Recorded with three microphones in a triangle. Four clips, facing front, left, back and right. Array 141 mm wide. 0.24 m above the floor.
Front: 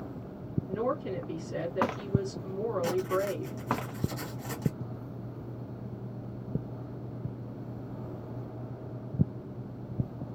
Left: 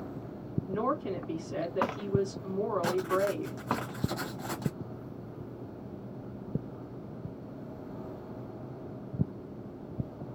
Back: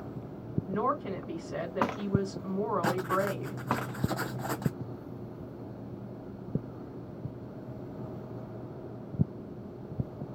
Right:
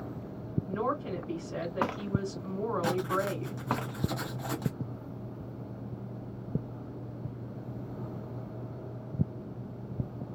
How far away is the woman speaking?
About 2.0 m.